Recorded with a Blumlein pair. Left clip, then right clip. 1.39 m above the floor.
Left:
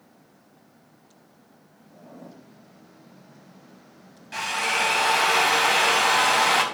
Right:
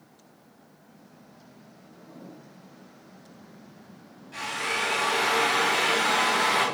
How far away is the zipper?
About 5.5 m.